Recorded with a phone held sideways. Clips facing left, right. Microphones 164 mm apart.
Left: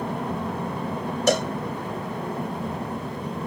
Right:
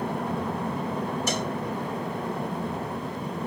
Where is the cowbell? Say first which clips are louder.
Left 7 dB; 70° left (ahead or behind).